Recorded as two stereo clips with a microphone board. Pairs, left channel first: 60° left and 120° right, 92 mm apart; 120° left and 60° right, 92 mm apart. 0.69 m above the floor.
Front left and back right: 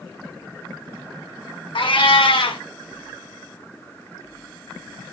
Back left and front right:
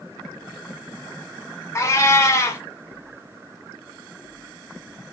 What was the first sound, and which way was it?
A cat meowing, 65° left.